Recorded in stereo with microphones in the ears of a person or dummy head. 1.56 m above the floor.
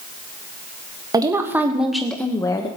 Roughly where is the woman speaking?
Centre.